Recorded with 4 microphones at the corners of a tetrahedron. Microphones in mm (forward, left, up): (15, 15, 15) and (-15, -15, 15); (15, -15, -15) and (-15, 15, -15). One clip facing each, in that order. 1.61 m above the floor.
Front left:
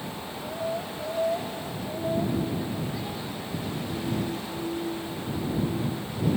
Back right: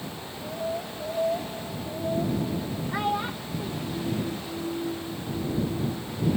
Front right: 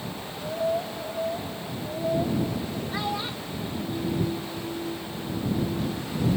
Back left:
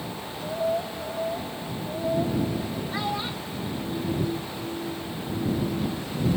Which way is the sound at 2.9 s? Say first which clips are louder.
Back right 6 dB, back left 1 dB; 140° right.